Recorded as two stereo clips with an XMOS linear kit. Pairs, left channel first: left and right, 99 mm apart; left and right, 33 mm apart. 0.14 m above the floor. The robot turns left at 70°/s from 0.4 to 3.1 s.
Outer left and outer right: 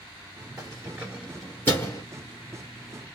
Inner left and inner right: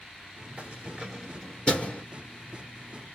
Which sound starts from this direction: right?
Keys jangling, at 0.6 s.